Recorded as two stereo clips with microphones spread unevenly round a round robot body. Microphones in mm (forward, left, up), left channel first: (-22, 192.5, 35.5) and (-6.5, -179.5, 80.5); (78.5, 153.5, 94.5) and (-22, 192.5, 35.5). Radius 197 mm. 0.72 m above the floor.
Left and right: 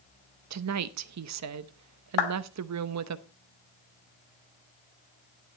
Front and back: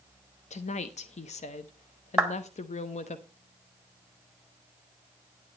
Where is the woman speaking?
55° right, 0.8 m.